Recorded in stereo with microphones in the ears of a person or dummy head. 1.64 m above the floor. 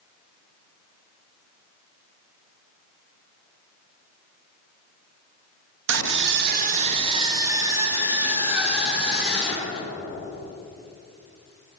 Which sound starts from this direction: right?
A scream, at 5.9 s.